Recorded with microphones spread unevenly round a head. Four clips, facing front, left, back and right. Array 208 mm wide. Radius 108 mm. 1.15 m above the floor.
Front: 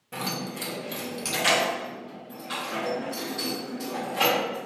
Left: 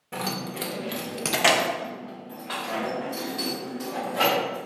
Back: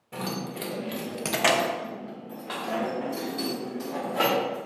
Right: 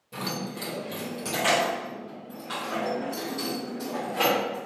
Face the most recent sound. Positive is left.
turn(degrees=-165)